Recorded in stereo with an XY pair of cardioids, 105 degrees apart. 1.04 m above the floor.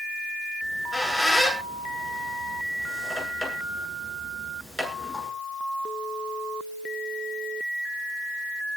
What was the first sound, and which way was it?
A squeak, 10° left.